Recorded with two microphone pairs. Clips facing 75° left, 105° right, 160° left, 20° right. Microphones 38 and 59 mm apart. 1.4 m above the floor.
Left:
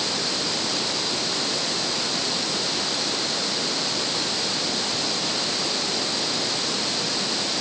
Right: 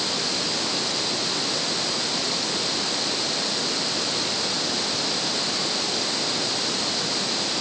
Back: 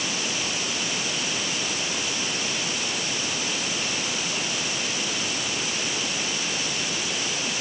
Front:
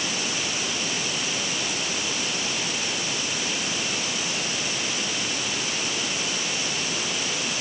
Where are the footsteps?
No footsteps in this recording.